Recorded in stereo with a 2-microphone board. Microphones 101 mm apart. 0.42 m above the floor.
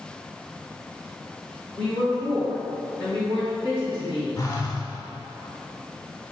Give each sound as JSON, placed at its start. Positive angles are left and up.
{"t": 1.7, "sound": "a woman speaking", "side_deg": -55, "distance_m": 1.8}
{"t": 4.4, "sound": "a phone buzzing", "side_deg": 35, "distance_m": 0.8}